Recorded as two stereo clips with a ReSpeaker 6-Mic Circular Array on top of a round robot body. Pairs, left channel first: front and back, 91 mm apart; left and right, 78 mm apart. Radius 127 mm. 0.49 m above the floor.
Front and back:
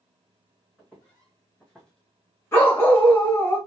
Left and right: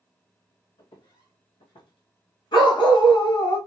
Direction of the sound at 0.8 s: 80° left.